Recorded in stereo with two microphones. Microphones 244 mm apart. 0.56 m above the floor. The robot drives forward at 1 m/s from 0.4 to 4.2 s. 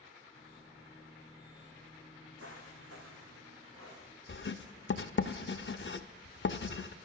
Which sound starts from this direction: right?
Footsteps, at 2.4 s.